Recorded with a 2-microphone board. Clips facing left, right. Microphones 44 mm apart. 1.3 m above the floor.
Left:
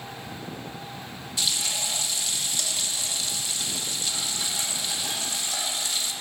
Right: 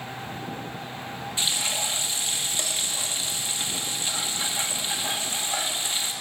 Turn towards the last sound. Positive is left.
turn(degrees=-30)  # may be behind; listen again after turning